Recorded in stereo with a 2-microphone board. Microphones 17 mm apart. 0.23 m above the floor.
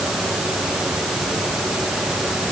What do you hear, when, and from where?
Only background noise.